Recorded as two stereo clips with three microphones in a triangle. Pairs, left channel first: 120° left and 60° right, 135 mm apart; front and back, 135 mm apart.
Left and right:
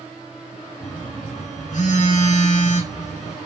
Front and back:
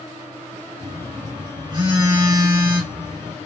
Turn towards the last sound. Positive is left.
turn(degrees=130)